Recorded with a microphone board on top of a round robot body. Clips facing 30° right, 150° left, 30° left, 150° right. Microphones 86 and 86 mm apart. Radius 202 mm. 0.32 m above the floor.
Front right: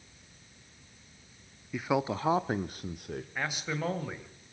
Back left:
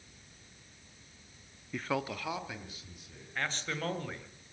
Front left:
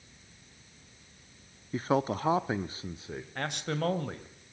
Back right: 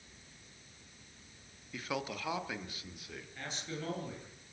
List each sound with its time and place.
1.7 s a man speaking: 50° left, 1.0 m; by 3.2 s 30° right, 1.6 m
3.4 s a man speaking: 50° left, 2.5 m